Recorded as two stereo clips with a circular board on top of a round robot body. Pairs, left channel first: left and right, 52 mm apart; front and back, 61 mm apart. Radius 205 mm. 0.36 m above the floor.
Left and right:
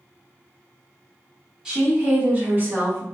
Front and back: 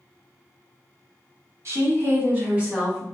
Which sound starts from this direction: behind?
A woman speaking, at 1.6 s.